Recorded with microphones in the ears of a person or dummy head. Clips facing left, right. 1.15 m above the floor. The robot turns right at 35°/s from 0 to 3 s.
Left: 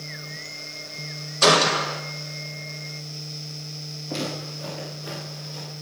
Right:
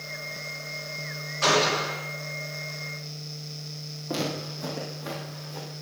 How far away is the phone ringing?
No phone ringing in this recording.